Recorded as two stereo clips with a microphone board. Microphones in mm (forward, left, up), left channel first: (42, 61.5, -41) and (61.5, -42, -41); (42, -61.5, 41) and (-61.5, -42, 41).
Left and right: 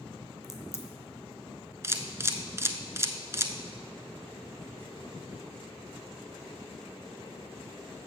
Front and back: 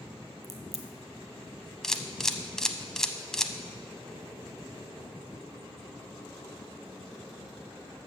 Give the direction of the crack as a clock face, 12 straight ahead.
7 o'clock.